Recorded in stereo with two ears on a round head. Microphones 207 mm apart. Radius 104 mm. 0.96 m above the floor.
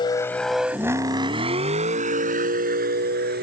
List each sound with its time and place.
0.0 s a vehicle: 20° left (ahead or behind); by 3.5 s 45° right (ahead or behind)